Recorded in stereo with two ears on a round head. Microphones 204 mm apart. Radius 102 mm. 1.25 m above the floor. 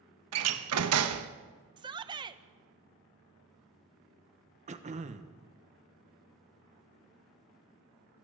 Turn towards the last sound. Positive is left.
turn(degrees=-30)  # may be behind; listen again after turning